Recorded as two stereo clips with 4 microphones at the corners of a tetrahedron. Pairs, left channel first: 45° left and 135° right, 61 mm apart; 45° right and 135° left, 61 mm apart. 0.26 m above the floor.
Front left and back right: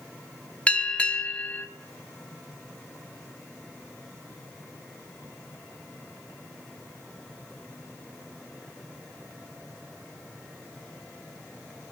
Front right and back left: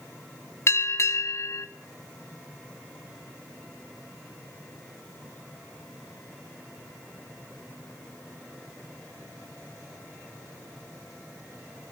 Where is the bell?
20° right, 1.2 m.